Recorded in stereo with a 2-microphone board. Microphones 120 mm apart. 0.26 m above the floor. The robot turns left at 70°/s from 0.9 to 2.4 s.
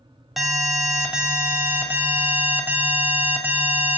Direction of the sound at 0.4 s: Centre (ahead or behind).